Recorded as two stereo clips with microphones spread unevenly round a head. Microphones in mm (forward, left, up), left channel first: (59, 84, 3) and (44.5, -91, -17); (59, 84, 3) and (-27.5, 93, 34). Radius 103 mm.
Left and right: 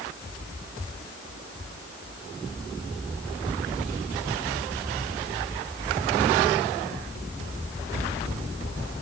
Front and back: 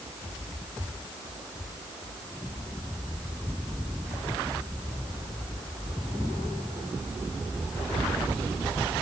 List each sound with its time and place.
Only background noise.